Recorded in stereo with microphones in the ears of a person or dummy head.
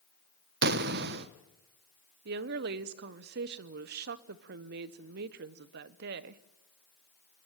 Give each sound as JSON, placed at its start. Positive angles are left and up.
{"t": 0.6, "sound": "an explosion", "side_deg": -60, "distance_m": 0.8}
{"t": 2.2, "sound": "a woman speaking", "side_deg": -55, "distance_m": 1.0}